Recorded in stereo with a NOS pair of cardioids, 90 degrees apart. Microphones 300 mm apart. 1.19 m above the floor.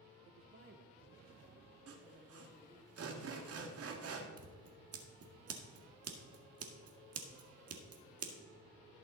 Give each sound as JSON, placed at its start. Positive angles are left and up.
{"t": 0.3, "sound": "a woman speaking", "azimuth_deg": -55, "distance_m": 0.9}
{"t": 1.9, "sound": "sawing", "azimuth_deg": -50, "distance_m": 1.8}
{"t": 4.4, "sound": "scissors", "azimuth_deg": -50, "distance_m": 1.7}